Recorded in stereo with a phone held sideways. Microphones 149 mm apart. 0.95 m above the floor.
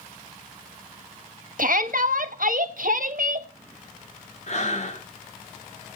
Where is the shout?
65° right (ahead or behind), 1.5 m.